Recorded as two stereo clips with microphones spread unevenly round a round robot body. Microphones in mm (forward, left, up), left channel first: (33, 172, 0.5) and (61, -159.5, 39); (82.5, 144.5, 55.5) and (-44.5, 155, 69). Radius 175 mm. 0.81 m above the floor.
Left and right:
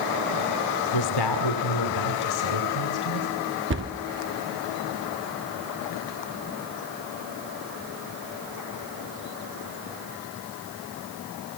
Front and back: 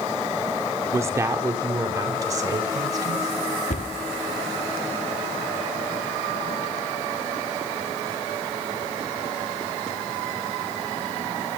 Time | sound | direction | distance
0.9 | a woman speaking | 105° left | 2 m
3.7 | a cupboard door | 30° right | 1.5 m